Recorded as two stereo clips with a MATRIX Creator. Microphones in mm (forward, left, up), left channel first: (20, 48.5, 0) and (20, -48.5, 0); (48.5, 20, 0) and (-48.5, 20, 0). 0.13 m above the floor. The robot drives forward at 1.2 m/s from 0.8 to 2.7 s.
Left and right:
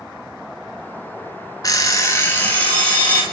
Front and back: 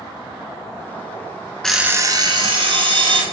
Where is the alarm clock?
80° left, 0.6 m; by 3.2 s 160° left, 1.4 m.